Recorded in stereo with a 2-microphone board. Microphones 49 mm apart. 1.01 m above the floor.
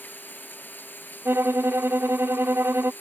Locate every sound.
0.0 s running water: 45° left (ahead or behind)
1.2 s a violin: 60° right (ahead or behind)